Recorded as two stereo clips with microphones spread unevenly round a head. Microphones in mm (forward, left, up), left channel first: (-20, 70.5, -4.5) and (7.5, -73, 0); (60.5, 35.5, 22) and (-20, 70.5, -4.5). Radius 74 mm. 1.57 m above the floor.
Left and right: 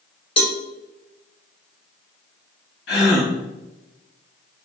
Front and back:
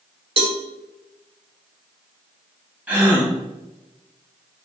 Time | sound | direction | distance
0.4 | a cowbell | 150° left | 1.5 m
2.9 | a gasp | 85° left | 3 m